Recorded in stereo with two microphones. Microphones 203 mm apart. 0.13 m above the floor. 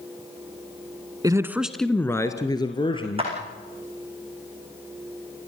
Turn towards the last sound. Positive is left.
turn(degrees=-30)  # may be behind; listen again after turning